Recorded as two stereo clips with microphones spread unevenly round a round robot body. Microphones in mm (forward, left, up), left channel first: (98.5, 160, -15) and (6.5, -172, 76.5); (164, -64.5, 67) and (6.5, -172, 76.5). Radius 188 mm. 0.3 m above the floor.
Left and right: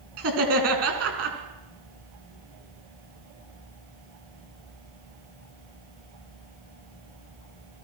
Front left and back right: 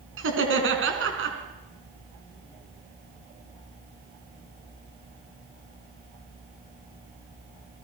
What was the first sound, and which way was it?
Laughter, 165° right.